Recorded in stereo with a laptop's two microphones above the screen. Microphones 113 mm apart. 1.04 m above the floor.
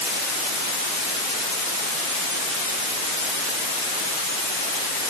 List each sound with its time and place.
Only background noise.